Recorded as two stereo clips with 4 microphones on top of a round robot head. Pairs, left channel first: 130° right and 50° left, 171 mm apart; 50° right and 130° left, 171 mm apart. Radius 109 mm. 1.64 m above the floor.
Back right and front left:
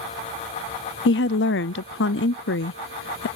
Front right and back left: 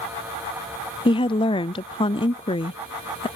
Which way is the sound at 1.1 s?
110° right.